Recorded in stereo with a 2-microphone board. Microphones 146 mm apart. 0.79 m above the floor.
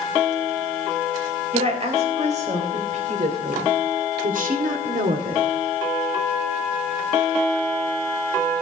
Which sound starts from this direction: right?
A woman speaking, at 1.5 s.